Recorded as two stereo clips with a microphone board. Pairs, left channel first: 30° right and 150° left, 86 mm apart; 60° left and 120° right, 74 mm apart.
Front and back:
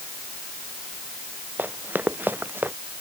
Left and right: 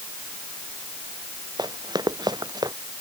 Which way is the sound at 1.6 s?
140° right.